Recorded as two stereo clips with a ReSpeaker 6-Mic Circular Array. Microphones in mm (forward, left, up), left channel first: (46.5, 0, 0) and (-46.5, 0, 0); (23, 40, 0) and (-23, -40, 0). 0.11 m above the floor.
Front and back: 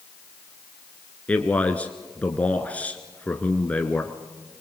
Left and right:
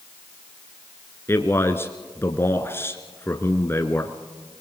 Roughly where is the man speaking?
Ahead left.